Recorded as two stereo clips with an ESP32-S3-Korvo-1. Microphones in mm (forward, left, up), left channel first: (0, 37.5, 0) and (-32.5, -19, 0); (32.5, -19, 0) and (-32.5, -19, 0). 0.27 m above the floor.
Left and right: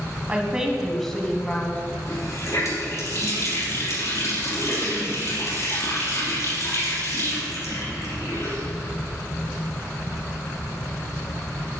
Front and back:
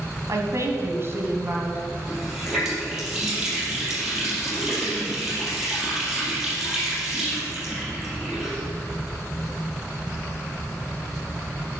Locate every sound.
0.3 s a woman speaking: 175° left, 1.6 m; by 1.8 s 120° left, 1.9 m
2.1 s a running tap: 95° left, 4.5 m